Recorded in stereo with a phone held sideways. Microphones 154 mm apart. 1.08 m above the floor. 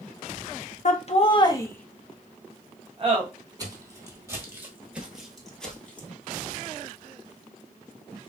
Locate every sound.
0.8 s laughter: 50° left (ahead or behind), 0.7 m; by 3.2 s 40° right (ahead or behind), 0.9 m
3.6 s footsteps: 25° right (ahead or behind), 1.3 m; by 6.1 s 10° left (ahead or behind), 1.1 m